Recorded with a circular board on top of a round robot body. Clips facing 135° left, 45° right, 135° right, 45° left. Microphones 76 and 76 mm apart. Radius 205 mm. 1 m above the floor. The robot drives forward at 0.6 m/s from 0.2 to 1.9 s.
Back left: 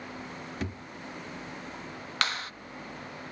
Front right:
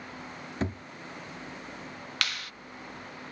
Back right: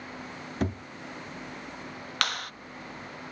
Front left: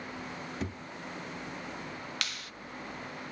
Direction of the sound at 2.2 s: 165° right.